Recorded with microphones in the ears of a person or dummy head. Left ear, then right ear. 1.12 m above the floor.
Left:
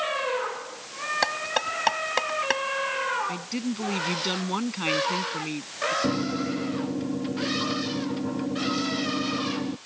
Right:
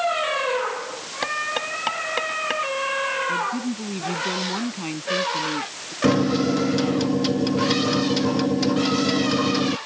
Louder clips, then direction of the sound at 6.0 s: Right 7 dB; 85° right.